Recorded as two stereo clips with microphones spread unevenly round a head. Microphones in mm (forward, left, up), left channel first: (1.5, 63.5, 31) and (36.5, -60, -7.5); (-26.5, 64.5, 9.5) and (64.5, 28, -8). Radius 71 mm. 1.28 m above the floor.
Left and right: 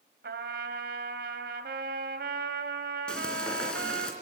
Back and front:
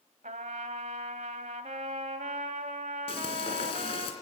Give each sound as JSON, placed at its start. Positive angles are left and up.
{"t": 0.2, "sound": "a trumpet", "azimuth_deg": -60, "distance_m": 2.0}
{"t": 3.1, "sound": "frying", "azimuth_deg": -175, "distance_m": 3.0}